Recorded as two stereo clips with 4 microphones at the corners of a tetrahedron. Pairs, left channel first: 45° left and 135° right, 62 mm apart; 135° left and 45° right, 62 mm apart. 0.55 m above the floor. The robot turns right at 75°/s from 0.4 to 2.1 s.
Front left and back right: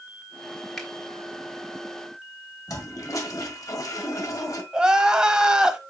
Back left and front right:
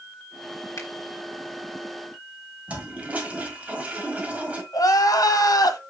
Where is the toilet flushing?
20° left, 1.6 m.